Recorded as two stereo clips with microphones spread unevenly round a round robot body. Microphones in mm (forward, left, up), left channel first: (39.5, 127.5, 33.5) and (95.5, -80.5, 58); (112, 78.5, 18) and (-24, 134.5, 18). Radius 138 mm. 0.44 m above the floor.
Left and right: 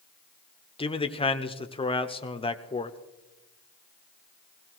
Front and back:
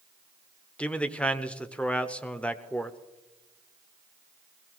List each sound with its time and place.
0.8 s a man speaking: 55° left, 1.1 m